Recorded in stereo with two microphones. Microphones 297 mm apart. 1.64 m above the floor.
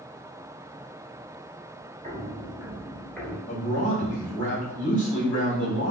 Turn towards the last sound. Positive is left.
turn(degrees=75)  # may be behind; listen again after turning